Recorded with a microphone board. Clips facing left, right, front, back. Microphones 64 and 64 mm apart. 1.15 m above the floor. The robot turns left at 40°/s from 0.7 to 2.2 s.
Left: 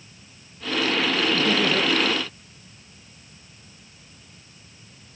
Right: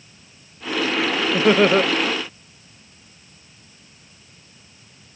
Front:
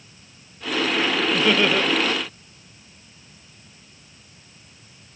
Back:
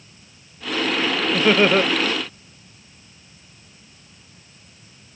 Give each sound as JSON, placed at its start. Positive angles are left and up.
{"t": 1.3, "sound": "laughter", "azimuth_deg": -105, "distance_m": 0.9}